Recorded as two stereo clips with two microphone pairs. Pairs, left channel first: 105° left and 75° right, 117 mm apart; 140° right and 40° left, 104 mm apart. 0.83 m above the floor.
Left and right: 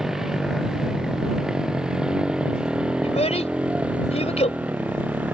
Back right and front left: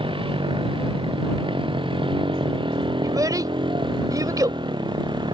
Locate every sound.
0.0 s a motorcycle: 15° left; by 5.3 s 5° left
3.0 s a child speaking: 95° left